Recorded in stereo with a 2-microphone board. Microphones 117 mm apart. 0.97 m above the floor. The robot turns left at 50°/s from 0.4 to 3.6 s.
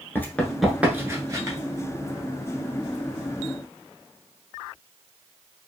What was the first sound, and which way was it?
Running footsteps, 20° left (ahead or behind).